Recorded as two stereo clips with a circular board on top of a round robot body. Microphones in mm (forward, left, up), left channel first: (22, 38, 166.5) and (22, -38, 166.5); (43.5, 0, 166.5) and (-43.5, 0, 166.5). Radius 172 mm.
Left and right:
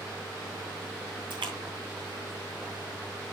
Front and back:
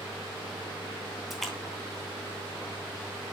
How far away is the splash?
About 3 m.